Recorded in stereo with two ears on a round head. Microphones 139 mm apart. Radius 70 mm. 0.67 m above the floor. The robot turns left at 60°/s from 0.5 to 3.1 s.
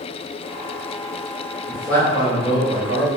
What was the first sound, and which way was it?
A man speaking, 175° right.